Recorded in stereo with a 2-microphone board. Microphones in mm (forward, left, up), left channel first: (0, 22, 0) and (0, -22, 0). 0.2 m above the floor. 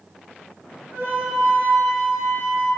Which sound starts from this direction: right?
A flute, at 0.9 s.